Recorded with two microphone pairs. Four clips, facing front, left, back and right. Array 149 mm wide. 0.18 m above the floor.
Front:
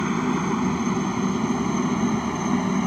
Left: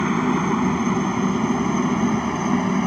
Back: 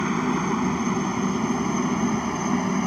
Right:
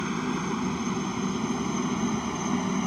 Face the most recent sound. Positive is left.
turn(degrees=95)